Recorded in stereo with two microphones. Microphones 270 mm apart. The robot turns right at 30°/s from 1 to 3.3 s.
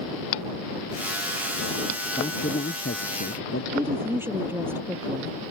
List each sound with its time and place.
2.2 s a man speaking: 25° left; by 3.6 s 60° left
3.7 s a woman speaking: 10° right (ahead or behind)